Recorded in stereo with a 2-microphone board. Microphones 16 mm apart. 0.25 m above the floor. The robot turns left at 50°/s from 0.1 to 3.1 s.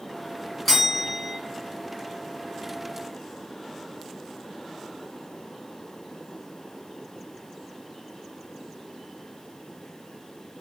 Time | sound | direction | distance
0.7 | a bell | 20° left | 1.0 m